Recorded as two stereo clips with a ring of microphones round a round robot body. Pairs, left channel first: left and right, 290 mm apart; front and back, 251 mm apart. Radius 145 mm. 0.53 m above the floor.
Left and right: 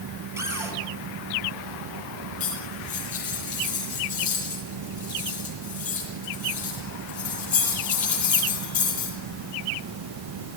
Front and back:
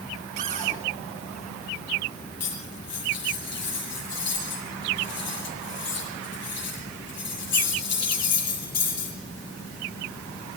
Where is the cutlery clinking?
25° left, 9.5 m.